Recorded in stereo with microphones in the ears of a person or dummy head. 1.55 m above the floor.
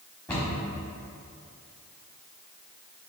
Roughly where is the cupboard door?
Centre.